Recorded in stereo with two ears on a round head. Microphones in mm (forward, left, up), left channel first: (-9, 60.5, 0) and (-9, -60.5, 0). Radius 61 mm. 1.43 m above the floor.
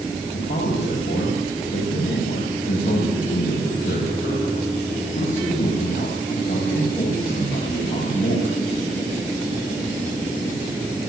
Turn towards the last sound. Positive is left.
turn(degrees=85)